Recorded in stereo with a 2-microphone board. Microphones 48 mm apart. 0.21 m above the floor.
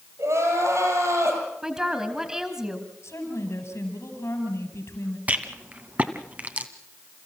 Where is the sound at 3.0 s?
70° left (ahead or behind), 5.5 m.